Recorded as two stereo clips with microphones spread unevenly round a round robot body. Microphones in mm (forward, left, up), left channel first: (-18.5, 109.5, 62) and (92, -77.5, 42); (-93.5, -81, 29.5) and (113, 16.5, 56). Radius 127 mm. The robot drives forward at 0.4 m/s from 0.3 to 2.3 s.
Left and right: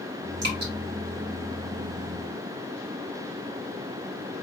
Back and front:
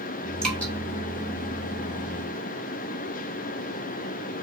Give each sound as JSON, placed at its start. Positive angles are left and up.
{"t": 0.4, "sound": "dripping", "azimuth_deg": -70, "distance_m": 1.8}